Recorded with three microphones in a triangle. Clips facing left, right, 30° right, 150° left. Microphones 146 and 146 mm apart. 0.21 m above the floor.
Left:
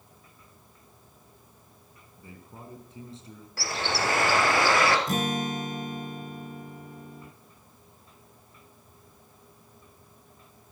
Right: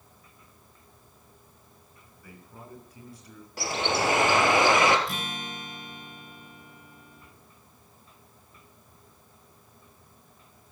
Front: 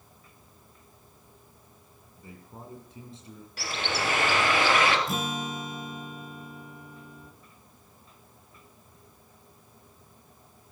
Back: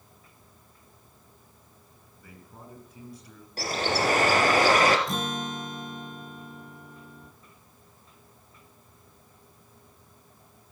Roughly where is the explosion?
I don't hear an explosion.